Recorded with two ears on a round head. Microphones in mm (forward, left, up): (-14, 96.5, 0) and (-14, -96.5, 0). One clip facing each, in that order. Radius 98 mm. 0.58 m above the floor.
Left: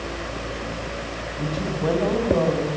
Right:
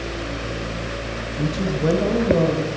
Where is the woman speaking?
25° right (ahead or behind), 3 m.